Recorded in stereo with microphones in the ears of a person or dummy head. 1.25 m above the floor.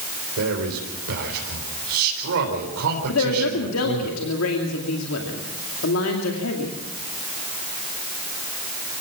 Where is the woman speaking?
75° left (ahead or behind), 2.5 m.